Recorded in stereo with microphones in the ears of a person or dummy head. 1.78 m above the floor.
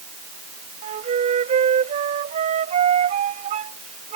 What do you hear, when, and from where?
0.8 s a flute: 35° right (ahead or behind)